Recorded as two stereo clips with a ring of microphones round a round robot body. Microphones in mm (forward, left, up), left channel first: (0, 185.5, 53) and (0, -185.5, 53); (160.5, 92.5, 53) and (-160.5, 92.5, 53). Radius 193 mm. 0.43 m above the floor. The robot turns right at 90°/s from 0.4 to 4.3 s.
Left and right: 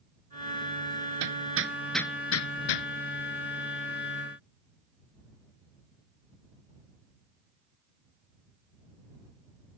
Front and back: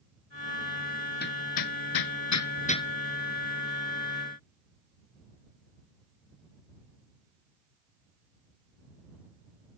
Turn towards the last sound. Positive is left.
turn(degrees=-150)